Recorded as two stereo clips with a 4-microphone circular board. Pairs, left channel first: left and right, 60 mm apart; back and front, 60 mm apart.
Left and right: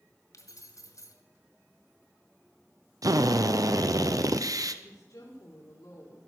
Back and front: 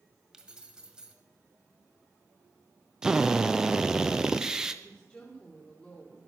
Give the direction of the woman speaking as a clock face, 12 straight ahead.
8 o'clock.